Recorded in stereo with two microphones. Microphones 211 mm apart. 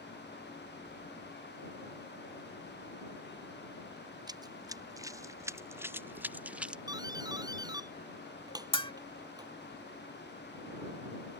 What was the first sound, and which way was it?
Running footsteps, 20° right (ahead or behind).